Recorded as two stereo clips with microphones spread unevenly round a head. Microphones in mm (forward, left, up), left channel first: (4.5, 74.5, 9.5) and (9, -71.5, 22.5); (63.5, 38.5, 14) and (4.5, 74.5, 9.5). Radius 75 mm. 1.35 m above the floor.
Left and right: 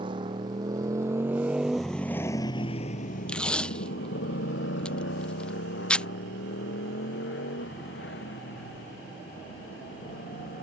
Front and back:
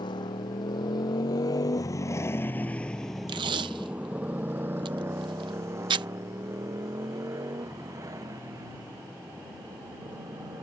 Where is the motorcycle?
30° right; by 10.6 s 110° left.